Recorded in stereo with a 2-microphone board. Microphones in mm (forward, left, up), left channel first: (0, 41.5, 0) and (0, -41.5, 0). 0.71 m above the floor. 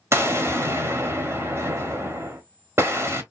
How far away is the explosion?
About 0.8 m.